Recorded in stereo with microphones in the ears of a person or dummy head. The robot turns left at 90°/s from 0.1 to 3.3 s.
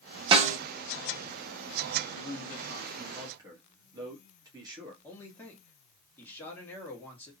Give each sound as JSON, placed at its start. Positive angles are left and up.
{"t": 0.3, "sound": "a snare drum", "side_deg": -30, "distance_m": 0.6}
{"t": 2.1, "sound": "a man speaking", "azimuth_deg": 80, "distance_m": 1.3}
{"t": 5.0, "sound": "a man speaking", "side_deg": 10, "distance_m": 1.8}